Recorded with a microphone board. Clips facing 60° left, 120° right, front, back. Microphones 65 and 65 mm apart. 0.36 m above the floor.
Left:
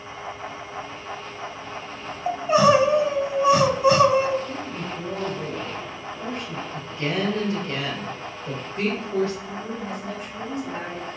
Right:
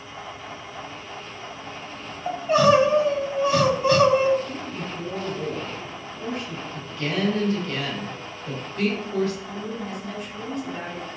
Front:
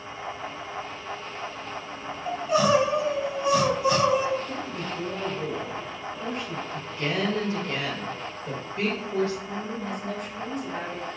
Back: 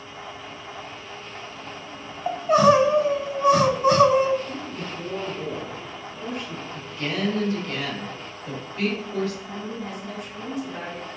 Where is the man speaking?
60° left, 1.5 m.